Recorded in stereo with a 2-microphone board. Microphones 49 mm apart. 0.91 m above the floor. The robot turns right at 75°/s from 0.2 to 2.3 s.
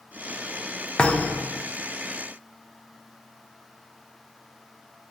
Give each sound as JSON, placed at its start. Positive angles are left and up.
{"t": 1.0, "sound": "a thud", "azimuth_deg": 25, "distance_m": 0.5}